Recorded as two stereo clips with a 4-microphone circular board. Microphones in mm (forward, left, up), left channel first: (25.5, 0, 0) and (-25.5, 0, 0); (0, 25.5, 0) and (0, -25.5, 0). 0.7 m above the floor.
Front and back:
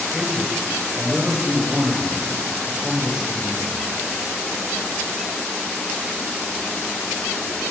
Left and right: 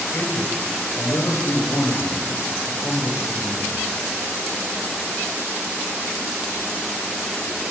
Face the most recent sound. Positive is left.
turn(degrees=110)